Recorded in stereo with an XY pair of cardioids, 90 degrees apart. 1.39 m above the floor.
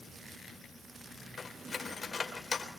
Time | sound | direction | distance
1.4 | cutlery clinking | 35° left | 3.5 m